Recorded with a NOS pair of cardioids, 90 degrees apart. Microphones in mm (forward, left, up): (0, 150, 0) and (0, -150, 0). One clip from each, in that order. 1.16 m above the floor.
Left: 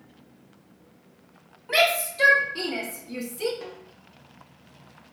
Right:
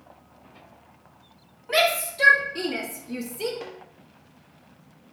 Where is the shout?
5° right, 3 m; by 3.5 s 10° right, 1.8 m.